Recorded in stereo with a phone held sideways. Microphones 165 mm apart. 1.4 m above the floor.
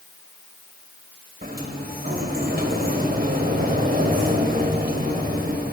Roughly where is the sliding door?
Right.